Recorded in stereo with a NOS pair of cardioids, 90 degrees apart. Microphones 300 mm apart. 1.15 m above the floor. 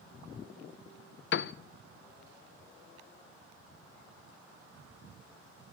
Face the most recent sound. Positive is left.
turn(degrees=40)